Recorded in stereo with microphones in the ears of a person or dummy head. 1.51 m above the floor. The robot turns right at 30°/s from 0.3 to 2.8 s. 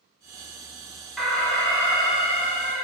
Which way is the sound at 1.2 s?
Straight ahead.